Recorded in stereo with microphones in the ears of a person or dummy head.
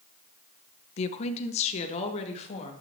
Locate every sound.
1.0 s a woman speaking: 40° left (ahead or behind), 0.6 m